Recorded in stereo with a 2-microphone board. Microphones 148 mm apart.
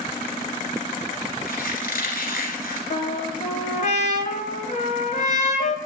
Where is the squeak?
70° left (ahead or behind), 1.8 m.